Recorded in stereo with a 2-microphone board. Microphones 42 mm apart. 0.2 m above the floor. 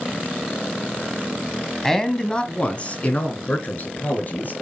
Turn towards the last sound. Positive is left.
turn(degrees=45)  # may be behind; listen again after turning